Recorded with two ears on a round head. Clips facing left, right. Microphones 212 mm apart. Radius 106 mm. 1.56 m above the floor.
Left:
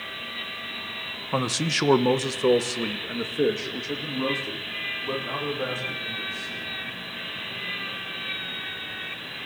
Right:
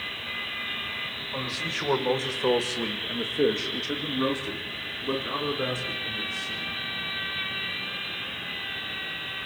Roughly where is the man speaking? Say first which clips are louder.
Left 9 dB; left.